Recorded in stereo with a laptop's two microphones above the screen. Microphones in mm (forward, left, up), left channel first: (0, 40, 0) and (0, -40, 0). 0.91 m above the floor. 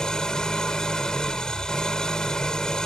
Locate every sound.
0.0 s an engine running: 10° left (ahead or behind)